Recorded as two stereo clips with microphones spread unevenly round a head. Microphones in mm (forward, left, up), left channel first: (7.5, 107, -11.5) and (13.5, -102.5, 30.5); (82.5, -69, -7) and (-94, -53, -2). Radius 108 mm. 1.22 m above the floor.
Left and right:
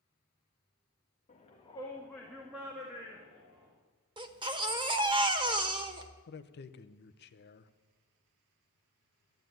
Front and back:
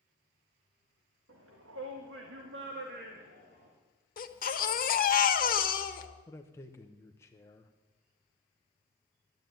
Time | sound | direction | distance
1.3 | a shout | 150° left | 1.8 m
4.2 | a baby crying | 30° right | 1.4 m
6.3 | a man speaking | 70° left | 1.0 m